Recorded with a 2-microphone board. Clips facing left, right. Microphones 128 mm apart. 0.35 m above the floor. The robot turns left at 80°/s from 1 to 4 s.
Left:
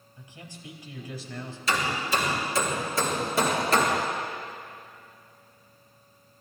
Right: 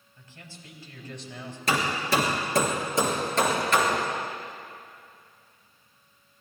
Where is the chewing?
No chewing in this recording.